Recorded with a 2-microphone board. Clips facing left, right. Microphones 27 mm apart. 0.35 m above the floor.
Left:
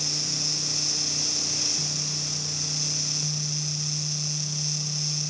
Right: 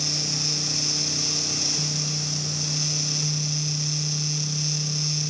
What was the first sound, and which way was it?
Only background noise.